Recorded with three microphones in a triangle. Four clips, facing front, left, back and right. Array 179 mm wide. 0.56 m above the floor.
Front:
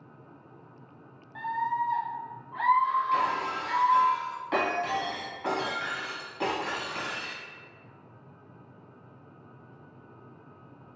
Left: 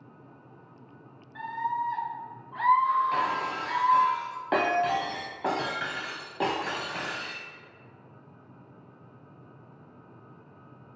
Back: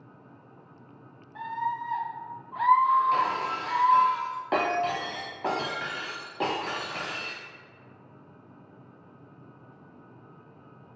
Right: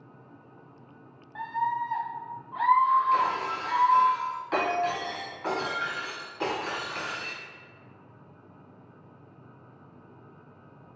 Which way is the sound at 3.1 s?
125° left.